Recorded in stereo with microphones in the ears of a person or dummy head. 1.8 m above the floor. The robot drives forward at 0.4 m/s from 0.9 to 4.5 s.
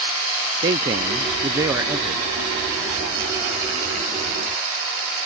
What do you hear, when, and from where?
0.6 s a man speaking: 15° right (ahead or behind); by 2.3 s 10° right (ahead or behind)